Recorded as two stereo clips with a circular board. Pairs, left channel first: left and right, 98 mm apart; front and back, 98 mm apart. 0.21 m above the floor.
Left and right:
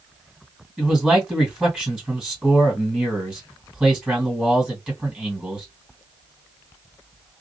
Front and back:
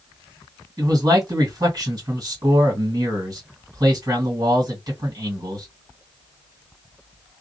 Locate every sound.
0.8 s a man speaking: 165° right, 1.9 m